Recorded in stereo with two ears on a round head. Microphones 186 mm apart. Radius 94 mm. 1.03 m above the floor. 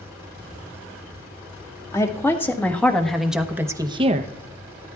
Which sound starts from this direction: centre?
A woman speaking, at 1.9 s.